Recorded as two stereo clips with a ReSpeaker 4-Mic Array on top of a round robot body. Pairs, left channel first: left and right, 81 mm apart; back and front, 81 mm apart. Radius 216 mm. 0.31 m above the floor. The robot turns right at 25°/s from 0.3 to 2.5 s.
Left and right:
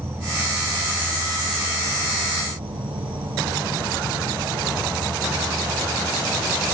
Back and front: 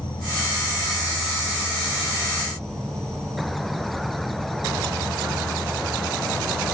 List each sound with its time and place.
0.0 s an insect: 155° right, 1.4 m; by 6.7 s 100° right, 1.4 m